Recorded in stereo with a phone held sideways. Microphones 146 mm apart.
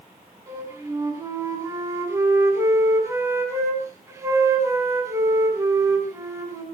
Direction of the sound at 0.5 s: 20° right (ahead or behind).